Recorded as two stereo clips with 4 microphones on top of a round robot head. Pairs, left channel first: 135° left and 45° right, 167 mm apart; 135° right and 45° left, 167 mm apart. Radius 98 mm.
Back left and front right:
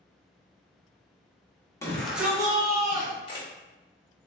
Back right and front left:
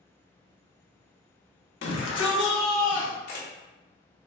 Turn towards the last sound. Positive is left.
turn(degrees=-165)